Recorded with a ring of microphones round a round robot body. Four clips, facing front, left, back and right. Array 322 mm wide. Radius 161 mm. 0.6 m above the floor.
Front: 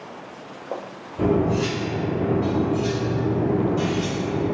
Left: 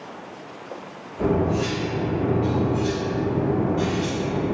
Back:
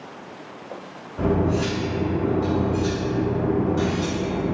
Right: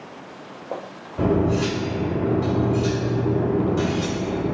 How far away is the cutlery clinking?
About 1.8 m.